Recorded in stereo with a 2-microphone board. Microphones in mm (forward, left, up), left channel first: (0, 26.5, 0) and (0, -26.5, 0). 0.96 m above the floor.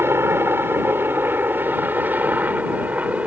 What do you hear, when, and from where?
0.0 s a helicopter: 50° right (ahead or behind); by 3.3 s 25° right (ahead or behind)